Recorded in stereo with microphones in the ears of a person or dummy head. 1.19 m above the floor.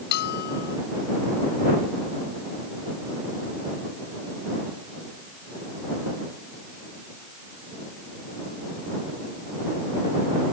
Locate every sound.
0.1 s a bell: 60° left (ahead or behind)